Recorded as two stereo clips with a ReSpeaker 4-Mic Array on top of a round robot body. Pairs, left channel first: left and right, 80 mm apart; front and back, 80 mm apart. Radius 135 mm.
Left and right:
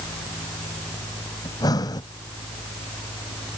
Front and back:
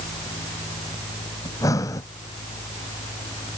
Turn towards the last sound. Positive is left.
turn(degrees=50)